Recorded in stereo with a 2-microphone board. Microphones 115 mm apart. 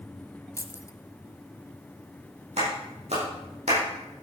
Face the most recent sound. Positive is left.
turn(degrees=-70)  # may be behind; listen again after turning